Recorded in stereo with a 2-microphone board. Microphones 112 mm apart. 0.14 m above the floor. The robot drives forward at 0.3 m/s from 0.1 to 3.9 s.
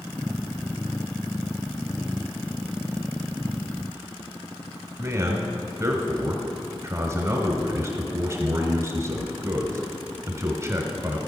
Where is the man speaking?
30° right (ahead or behind), 1.1 m.